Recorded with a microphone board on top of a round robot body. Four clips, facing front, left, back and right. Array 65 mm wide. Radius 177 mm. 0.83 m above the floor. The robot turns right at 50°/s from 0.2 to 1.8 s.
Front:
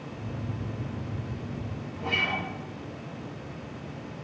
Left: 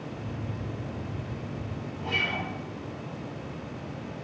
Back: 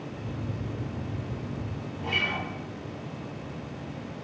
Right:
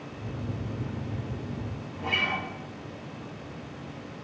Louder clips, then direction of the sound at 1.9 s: Right 1 dB, front 1 dB; 50° right.